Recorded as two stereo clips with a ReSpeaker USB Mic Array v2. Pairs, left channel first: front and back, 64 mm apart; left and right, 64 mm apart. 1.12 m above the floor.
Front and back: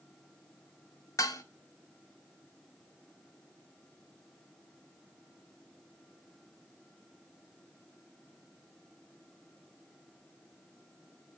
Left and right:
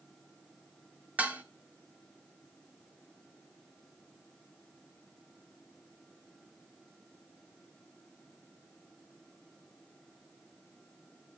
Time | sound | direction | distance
1.2 | dishes clattering | 20° right | 0.9 m